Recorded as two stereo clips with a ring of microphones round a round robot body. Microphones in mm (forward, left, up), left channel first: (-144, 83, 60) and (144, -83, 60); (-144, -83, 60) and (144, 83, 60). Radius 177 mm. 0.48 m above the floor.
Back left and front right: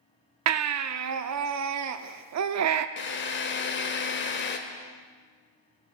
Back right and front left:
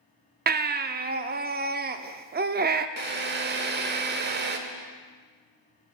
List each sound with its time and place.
0.5 s a baby crying: 25° right, 0.6 m
3.0 s a drill: 90° left, 0.9 m